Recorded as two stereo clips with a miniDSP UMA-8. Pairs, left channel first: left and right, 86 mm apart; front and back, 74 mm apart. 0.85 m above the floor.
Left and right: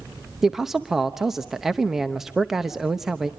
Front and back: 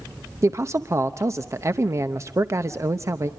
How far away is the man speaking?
About 0.8 m.